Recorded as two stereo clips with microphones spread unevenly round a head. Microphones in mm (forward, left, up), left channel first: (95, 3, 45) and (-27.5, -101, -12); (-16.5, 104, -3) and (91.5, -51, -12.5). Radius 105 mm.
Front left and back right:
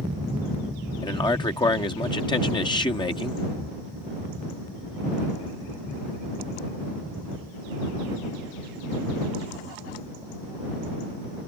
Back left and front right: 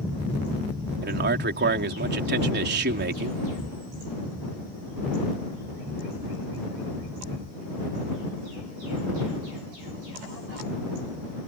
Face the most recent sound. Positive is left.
turn(degrees=-25)